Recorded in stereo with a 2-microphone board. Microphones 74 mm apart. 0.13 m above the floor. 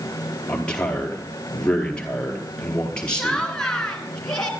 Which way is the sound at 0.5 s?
15° left (ahead or behind).